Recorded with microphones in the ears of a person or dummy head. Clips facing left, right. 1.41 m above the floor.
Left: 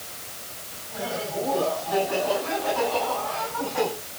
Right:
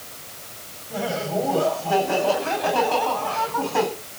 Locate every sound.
0.9 s laughter: 70° right (ahead or behind), 8.5 m; by 3.9 s 80° right, 12 m